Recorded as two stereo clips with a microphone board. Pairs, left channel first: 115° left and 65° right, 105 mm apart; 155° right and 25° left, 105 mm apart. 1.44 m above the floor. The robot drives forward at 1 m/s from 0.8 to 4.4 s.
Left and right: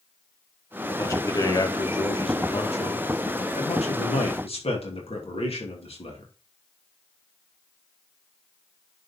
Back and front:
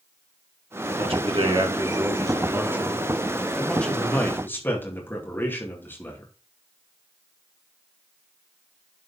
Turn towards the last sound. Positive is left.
turn(degrees=130)